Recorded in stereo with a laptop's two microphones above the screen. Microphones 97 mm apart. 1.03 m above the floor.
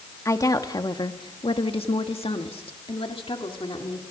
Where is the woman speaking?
30° left (ahead or behind), 1.9 m; by 4.0 s 60° left (ahead or behind), 3 m.